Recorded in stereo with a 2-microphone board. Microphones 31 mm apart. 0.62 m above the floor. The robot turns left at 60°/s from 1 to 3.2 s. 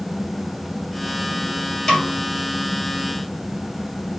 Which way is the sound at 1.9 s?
15° left (ahead or behind).